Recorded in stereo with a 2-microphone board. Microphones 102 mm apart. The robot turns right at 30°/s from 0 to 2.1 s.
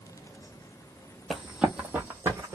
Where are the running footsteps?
Centre (ahead or behind), 0.8 m; by 2.5 s 30° right (ahead or behind), 1.4 m.